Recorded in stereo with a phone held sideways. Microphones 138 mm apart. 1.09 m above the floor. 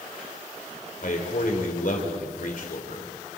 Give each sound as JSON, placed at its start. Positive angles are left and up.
{"t": 1.0, "sound": "a man speaking", "side_deg": 65, "distance_m": 3.5}